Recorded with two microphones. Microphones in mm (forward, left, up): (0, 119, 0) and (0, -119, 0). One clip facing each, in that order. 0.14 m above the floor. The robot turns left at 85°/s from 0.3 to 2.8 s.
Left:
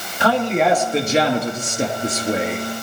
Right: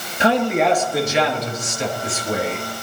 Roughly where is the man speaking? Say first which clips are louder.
Right 1 dB; behind right.